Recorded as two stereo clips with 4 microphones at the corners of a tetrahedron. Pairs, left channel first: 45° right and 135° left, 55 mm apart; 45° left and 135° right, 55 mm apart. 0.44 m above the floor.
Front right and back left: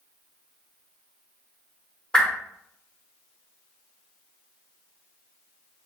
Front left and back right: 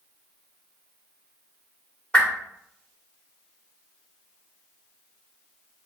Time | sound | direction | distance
2.1 | a whoosh | 5° left | 0.9 m